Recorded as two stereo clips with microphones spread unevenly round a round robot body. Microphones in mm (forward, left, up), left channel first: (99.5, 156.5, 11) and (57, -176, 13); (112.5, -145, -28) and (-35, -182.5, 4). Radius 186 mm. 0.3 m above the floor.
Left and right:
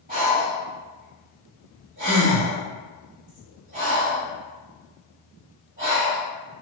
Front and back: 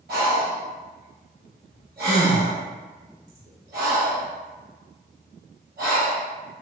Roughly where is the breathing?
Behind.